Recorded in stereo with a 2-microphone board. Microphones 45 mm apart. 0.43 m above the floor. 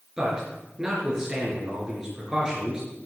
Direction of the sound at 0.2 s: 15° right (ahead or behind).